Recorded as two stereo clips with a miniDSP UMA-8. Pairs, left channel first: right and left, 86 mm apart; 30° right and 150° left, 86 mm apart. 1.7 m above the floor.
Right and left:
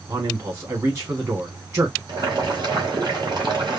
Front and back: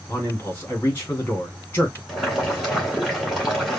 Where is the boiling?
60° left, 3.5 m.